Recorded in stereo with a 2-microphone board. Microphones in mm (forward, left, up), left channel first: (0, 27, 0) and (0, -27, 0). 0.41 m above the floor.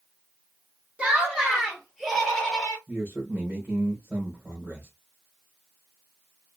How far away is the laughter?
About 1.2 m.